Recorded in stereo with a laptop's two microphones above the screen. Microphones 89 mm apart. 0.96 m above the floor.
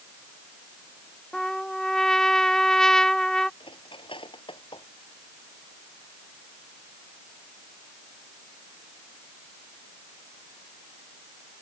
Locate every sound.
1.3 s a trumpet: 10° left (ahead or behind)
3.6 s cutlery clinking: 85° left